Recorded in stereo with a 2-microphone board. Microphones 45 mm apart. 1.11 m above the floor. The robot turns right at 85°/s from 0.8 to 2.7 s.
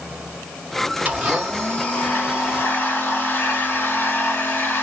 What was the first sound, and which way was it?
A blender, 40° right.